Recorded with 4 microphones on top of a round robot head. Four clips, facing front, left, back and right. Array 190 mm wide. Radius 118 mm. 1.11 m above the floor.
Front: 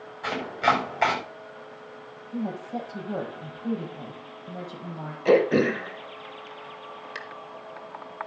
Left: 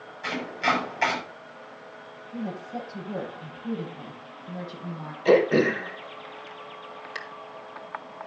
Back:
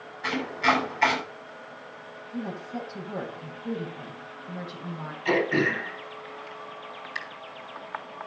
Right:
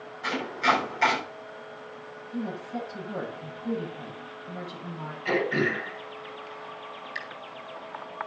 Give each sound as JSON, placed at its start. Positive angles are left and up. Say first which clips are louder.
{"t": 0.2, "sound": "chopping", "louder": "right 1 dB, front 1 dB", "azimuth_deg": 10, "distance_m": 6.0}
{"t": 2.3, "sound": "a woman speaking", "louder": "even, front 3 dB", "azimuth_deg": 15, "distance_m": 9.5}
{"t": 5.2, "sound": "throat clearing", "louder": "left 7 dB, front 5 dB", "azimuth_deg": 40, "distance_m": 1.6}